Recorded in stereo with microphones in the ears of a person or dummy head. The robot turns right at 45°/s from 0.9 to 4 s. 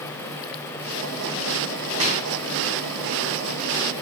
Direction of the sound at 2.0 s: 30° right (ahead or behind).